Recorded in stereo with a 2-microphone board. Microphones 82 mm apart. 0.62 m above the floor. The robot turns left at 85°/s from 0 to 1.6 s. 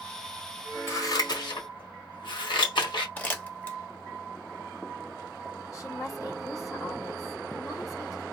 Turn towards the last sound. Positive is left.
turn(degrees=45)  # may be behind; listen again after turning